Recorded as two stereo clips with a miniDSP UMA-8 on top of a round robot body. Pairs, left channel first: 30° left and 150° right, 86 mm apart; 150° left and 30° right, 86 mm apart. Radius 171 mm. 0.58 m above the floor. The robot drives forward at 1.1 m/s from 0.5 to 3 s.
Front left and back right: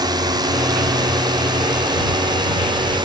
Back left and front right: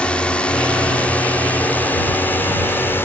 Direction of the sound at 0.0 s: 135° right.